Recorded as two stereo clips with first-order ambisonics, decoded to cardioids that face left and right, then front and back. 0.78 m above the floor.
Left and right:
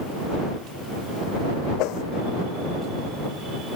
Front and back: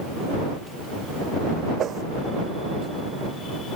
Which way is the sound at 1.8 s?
125° left.